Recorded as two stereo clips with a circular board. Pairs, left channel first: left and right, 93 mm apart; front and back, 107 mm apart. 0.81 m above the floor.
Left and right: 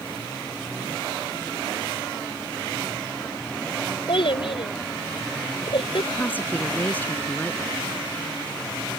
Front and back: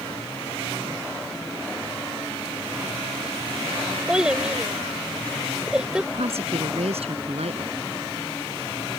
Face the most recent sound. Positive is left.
turn(degrees=160)